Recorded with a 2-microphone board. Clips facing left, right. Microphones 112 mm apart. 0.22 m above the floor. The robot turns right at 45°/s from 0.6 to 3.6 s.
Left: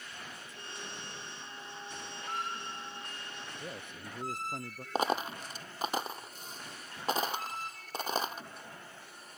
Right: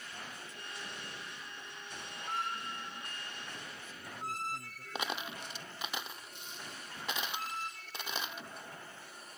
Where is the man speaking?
65° left (ahead or behind).